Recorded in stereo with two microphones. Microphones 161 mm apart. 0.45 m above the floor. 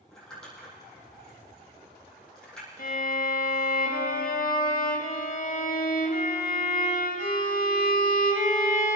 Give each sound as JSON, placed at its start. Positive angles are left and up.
{"t": 0.1, "sound": "crumpling", "side_deg": 5, "distance_m": 6.0}
{"t": 2.8, "sound": "a violin", "side_deg": 60, "distance_m": 1.6}